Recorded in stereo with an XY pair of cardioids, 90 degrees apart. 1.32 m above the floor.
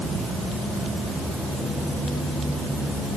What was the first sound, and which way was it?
Only background noise.